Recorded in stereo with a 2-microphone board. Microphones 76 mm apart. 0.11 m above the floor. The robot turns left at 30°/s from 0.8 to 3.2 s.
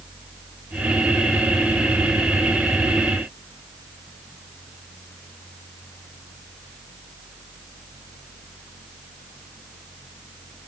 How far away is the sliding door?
No sliding door in this recording.